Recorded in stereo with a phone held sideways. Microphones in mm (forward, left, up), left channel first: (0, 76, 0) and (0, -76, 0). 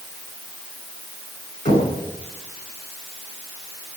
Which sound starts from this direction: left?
Knocking, at 1.6 s.